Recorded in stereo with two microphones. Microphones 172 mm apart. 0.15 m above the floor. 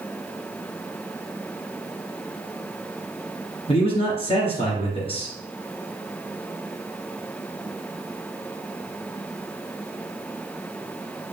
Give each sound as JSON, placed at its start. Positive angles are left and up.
{"t": 3.7, "sound": "a man speaking", "side_deg": 35, "distance_m": 2.5}